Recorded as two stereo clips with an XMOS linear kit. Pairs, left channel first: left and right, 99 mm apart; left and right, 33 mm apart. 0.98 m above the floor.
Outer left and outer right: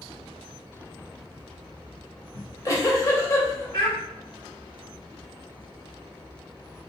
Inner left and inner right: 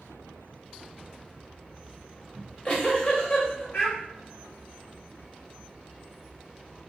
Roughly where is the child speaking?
Left.